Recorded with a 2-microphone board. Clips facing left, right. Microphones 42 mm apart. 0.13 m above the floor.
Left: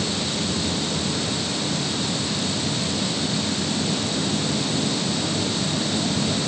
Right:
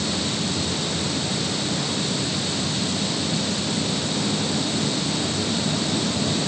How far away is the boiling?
No boiling in this recording.